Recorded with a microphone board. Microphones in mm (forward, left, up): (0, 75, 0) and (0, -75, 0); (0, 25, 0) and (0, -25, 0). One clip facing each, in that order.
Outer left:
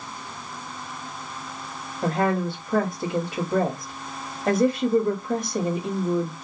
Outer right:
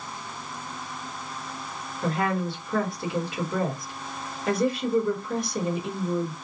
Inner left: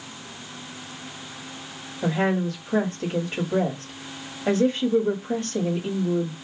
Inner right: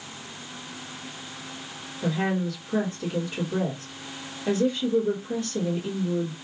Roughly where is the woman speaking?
Left.